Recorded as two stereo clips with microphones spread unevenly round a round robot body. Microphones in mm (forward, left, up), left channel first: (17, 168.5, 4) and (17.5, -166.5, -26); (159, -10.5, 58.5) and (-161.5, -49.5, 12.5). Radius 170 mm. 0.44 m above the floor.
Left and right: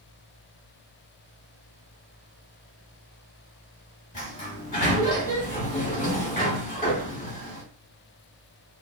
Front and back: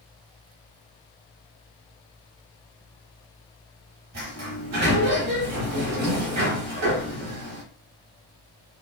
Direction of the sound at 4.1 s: 160° left.